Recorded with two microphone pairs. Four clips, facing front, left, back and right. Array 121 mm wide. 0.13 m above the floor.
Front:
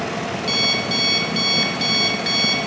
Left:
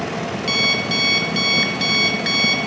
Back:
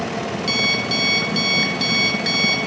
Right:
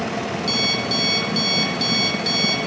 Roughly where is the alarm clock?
Left.